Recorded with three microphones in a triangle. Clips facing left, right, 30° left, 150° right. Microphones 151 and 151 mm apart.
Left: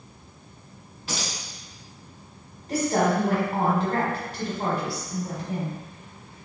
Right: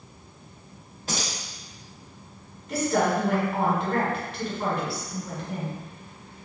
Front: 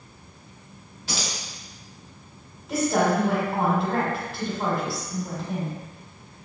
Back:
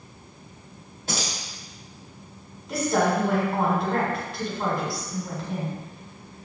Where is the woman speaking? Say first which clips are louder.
Left 1 dB, front 1 dB; 115° left, 1.2 m.